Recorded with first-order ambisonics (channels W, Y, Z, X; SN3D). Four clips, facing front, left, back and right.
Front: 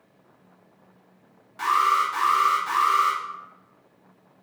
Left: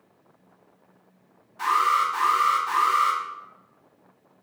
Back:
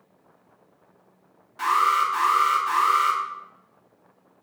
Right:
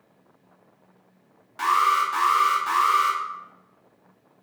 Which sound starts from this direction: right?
An alarm, at 1.6 s.